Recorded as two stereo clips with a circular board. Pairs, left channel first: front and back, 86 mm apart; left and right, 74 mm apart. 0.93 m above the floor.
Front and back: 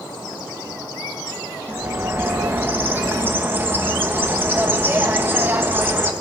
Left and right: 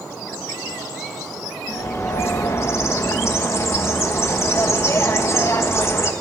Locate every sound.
1.7 s a bird: 125° left, 1.2 m